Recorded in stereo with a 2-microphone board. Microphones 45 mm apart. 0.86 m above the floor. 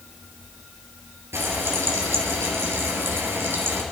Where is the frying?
75° right (ahead or behind), 3 m.